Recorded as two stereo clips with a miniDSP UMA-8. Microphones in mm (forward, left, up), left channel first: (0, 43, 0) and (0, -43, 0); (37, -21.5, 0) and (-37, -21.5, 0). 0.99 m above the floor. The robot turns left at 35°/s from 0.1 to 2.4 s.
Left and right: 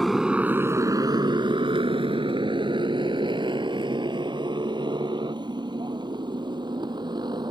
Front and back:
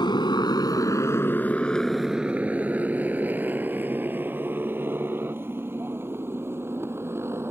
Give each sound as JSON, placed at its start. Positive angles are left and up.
{"t": 0.0, "sound": "a motorcycle", "azimuth_deg": 0}